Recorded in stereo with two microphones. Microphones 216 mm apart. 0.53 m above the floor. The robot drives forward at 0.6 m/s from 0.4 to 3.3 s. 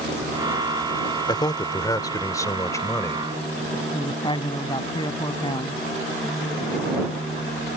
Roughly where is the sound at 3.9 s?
Left.